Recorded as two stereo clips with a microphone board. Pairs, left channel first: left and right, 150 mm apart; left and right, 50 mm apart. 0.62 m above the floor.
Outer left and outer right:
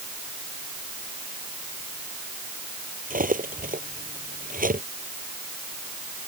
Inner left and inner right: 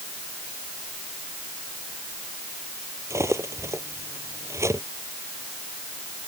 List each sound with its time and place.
3.1 s cutlery clinking: 65° right (ahead or behind)